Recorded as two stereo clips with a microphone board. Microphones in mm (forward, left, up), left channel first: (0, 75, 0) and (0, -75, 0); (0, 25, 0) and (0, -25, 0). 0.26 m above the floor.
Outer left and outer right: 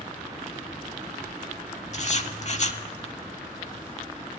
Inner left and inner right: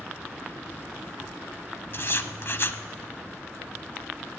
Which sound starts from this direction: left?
Writing, at 1.9 s.